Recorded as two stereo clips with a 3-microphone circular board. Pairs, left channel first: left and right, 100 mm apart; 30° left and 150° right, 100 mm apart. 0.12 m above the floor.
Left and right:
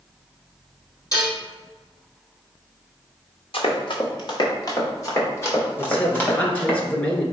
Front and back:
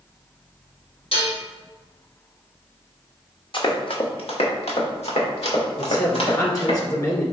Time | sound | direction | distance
1.1 | dishes clattering | 40° left | 3 m
3.5 | running footsteps | 60° left | 2 m
5.8 | a man speaking | 25° left | 1.8 m